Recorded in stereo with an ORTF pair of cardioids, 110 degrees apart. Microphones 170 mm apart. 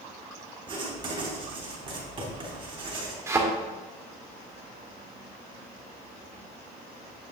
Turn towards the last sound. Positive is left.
turn(degrees=-15)